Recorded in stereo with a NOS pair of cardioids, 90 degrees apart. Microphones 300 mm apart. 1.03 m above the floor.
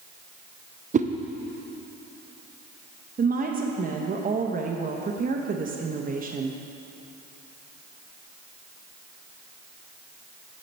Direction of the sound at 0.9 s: 25° right.